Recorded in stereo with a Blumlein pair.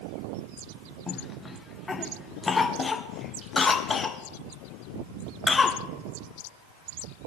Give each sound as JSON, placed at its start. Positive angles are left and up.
{"t": 1.1, "sound": "a cough", "azimuth_deg": 15, "distance_m": 0.6}